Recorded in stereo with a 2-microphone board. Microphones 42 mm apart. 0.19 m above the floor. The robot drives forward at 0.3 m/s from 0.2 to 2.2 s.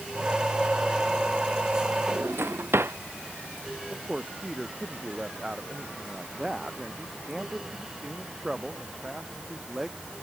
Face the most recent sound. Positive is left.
turn(degrees=-15)  # may be behind; listen again after turning